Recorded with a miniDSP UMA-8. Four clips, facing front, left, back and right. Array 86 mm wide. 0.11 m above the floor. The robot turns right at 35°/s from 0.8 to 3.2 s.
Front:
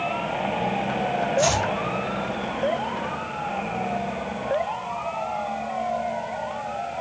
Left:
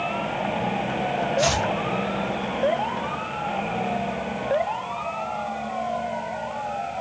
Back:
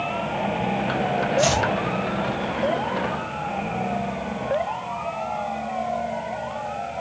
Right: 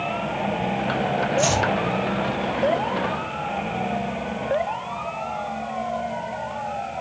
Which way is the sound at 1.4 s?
115° left.